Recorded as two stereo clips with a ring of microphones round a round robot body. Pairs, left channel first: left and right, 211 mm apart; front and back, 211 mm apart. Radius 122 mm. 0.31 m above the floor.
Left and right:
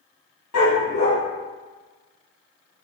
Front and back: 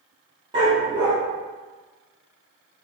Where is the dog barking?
110° left, 3.5 m.